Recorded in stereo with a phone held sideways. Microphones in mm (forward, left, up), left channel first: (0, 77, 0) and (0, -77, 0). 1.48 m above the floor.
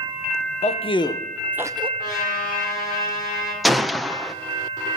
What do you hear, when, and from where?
0.6 s a man speaking: 45° left (ahead or behind), 0.9 m; by 1.9 s 35° right (ahead or behind), 0.6 m
2.0 s a trumpet: 70° left (ahead or behind), 6 m
3.6 s a gunshot: centre (ahead or behind), 0.6 m